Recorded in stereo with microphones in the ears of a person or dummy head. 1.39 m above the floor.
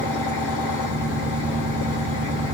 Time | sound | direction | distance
0.0 | an engine running | 40° left (ahead or behind) | 1.7 m